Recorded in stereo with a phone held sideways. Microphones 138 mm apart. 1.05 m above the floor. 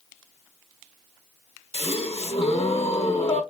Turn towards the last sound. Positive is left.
turn(degrees=45)  # may be behind; listen again after turning